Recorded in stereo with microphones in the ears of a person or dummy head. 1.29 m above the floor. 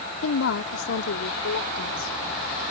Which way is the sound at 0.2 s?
70° left (ahead or behind).